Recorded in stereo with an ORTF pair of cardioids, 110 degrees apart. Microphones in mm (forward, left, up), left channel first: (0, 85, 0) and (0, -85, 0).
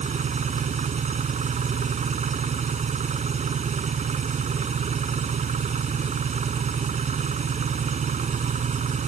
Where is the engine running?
45° right.